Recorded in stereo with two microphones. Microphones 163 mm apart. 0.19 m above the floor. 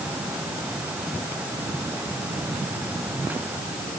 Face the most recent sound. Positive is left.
No sound to turn to.